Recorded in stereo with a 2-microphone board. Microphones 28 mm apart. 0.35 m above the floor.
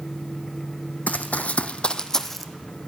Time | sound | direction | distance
1.1 | running footsteps | 70° left (ahead or behind) | 0.9 m